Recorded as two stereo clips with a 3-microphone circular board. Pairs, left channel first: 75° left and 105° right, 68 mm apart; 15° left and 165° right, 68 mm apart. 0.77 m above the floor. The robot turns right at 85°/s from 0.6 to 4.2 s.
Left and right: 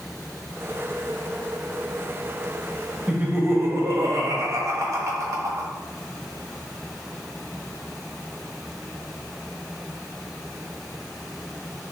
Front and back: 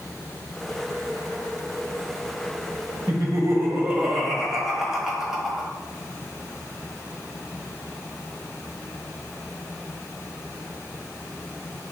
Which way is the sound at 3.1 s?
175° right.